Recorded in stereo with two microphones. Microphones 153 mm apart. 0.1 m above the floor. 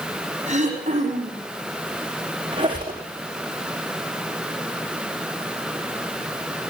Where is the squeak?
30° right (ahead or behind), 5 m.